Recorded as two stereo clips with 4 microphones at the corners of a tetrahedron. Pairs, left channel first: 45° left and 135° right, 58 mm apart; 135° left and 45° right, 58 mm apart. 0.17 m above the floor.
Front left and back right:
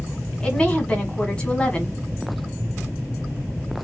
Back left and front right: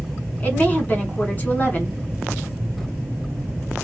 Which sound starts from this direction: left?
A woman speaking, at 0.4 s.